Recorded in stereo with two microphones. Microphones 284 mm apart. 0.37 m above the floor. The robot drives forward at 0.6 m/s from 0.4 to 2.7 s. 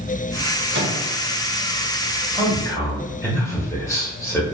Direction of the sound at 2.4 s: 10° left (ahead or behind).